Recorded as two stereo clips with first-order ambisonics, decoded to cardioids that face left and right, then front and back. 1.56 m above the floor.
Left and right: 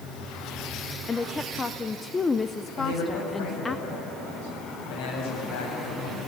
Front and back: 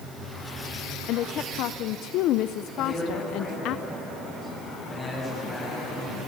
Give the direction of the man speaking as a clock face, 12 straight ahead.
9 o'clock.